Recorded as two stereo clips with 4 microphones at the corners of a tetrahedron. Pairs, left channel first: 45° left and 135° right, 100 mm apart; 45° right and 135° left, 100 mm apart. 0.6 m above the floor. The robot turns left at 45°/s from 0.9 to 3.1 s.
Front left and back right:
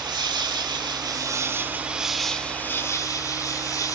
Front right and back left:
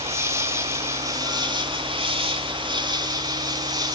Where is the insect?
165° right, 2 m; by 4.0 s 95° left, 2 m.